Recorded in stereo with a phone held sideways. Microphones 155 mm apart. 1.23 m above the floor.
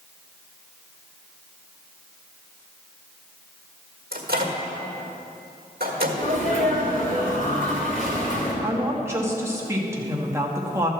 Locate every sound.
4.1 s a microwave: 85° right, 1.6 m
6.2 s a sneeze: 55° left (ahead or behind), 3 m
8.6 s a woman speaking: 20° right (ahead or behind), 1.6 m